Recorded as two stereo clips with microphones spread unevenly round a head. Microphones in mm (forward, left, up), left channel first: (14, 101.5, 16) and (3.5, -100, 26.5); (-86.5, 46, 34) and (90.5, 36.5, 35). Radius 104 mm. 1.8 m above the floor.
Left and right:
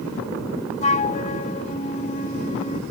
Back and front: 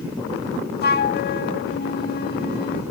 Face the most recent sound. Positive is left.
turn(degrees=145)